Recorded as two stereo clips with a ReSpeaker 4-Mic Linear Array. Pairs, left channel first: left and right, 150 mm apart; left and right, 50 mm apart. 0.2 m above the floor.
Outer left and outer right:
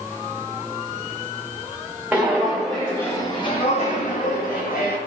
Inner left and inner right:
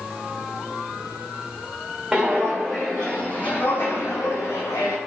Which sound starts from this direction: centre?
Footsteps, at 2.1 s.